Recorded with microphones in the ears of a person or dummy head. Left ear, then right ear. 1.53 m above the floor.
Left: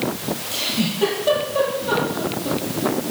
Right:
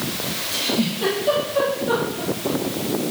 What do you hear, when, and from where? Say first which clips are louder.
0.5 s a giggle: even; 25° left (ahead or behind), 9 m